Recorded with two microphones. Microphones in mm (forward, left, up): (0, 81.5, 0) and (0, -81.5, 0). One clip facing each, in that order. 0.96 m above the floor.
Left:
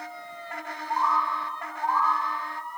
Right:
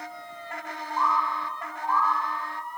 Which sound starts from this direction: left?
A bird, at 0.9 s.